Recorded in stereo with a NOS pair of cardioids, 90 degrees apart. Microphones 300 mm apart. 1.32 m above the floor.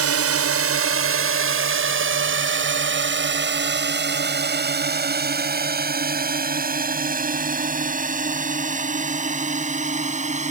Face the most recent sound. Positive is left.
turn(degrees=-25)